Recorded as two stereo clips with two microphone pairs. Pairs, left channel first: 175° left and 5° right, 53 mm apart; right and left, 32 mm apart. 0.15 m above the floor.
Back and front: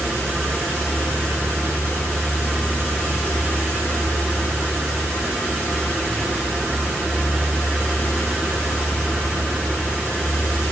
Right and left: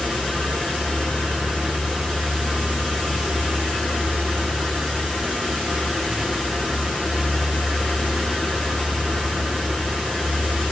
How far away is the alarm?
I don't hear an alarm.